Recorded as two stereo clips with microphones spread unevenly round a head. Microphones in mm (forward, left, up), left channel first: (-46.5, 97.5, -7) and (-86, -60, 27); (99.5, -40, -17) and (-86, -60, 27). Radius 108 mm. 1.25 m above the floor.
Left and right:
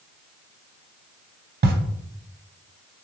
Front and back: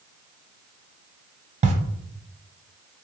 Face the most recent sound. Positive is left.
turn(degrees=-125)